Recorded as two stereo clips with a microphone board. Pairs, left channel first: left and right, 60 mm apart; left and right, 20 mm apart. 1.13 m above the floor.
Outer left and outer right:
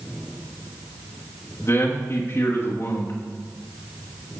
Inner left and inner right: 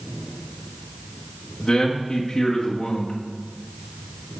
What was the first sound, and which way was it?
A man speaking, 45° left (ahead or behind).